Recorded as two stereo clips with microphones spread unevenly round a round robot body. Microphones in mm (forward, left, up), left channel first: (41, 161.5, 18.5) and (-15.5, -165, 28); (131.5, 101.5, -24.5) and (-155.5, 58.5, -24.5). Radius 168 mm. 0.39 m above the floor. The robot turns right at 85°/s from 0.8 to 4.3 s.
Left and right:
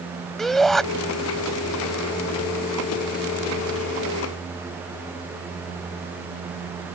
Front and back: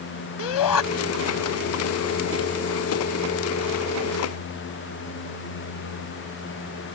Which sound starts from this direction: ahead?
A shout, at 0.4 s.